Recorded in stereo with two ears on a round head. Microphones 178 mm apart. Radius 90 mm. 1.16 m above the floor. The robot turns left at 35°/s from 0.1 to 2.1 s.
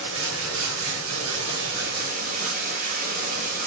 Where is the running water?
65° right, 2.5 m; by 3.7 s 135° right, 2.5 m.